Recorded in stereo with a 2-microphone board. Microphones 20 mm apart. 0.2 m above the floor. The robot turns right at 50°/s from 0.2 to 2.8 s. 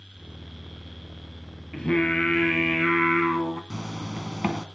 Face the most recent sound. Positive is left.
turn(degrees=-35)  # may be behind; listen again after turning